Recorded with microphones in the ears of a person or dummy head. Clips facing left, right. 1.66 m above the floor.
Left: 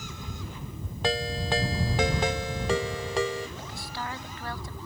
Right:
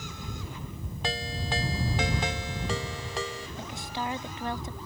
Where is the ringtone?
45° left (ahead or behind).